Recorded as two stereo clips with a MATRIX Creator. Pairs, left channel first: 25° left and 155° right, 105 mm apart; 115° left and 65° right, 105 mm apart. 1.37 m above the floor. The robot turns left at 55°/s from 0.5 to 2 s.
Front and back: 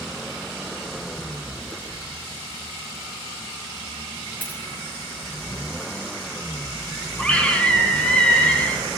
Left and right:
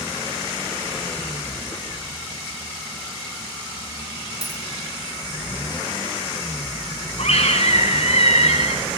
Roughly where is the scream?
Left.